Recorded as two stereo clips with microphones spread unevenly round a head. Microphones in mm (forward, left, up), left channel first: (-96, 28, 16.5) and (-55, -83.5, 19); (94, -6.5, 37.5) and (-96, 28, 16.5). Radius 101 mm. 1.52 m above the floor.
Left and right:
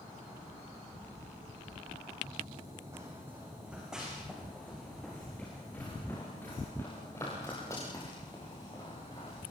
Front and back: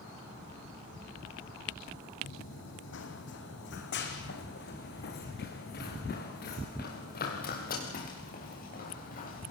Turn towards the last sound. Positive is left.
turn(degrees=35)